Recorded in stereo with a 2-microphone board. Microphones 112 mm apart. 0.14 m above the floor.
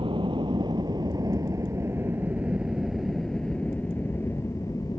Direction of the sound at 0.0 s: 50° right (ahead or behind).